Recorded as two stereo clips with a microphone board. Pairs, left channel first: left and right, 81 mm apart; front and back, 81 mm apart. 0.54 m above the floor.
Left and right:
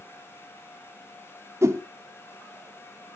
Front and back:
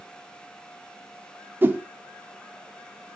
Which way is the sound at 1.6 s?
125° right.